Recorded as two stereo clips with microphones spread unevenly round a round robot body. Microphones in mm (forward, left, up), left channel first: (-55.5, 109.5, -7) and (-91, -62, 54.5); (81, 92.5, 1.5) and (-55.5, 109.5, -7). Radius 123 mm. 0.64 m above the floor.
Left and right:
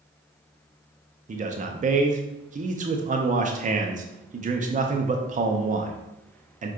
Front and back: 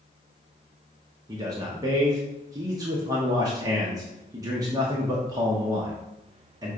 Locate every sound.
1.3 s a man speaking: 150° right, 0.6 m